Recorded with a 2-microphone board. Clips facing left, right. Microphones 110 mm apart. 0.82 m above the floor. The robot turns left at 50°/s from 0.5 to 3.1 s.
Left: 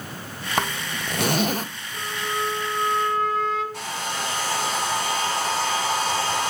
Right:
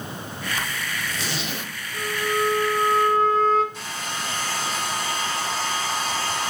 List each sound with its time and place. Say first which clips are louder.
0.6 s a zipper: left 4 dB; 100° left, 0.5 m; by 1.7 s 45° left, 0.5 m
1.9 s a flute: right 4 dB; 5° right, 1.2 m; by 3.6 s 60° right, 1.2 m
3.7 s a hair dryer: left 3 dB; 75° left (ahead or behind), 3.5 m